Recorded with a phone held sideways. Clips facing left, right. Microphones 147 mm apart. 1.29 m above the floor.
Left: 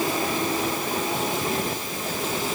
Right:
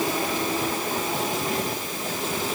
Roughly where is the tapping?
I don't hear tapping.